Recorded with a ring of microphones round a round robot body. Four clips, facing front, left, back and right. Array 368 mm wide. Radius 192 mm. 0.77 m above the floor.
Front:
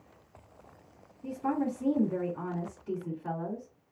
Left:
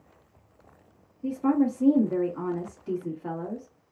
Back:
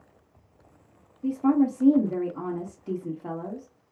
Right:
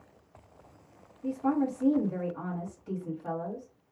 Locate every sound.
1.2 s a woman speaking: 150° left, 2.0 m